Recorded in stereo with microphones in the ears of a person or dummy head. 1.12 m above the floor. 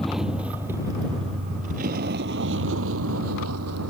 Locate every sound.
0.0 s a vehicle: 10° left (ahead or behind); by 3.9 s 75° right (ahead or behind)